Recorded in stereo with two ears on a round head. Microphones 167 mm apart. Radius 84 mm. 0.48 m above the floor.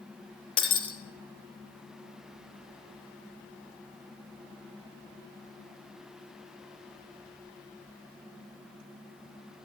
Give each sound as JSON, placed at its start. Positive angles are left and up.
{"t": 0.6, "sound": "breaking glass", "side_deg": 30, "distance_m": 3.5}